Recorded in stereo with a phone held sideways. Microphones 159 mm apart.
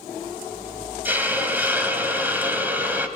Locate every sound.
1.1 s a hiss: 10° right (ahead or behind), 2.0 m